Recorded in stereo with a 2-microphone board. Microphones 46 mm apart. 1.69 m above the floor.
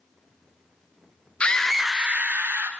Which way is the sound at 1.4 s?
30° left (ahead or behind).